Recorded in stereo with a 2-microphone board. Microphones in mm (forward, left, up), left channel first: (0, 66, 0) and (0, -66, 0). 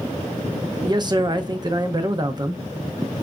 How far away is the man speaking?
About 0.8 m.